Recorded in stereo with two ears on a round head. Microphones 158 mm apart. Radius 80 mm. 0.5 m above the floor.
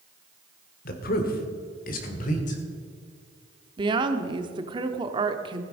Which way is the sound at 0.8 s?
55° left (ahead or behind).